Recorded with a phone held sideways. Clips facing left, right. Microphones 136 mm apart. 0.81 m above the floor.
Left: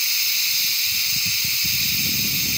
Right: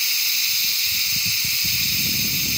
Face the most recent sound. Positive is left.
No sound to turn to.